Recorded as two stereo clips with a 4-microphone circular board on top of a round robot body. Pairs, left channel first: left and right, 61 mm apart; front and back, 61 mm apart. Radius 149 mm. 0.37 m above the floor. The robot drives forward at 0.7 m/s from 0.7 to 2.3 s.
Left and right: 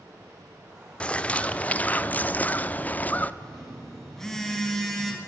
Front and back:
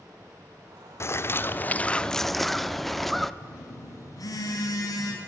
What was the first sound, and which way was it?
A bird, 25° left.